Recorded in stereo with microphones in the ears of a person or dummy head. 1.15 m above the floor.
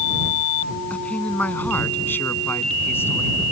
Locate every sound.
0.9 s a man speaking: 10° left (ahead or behind)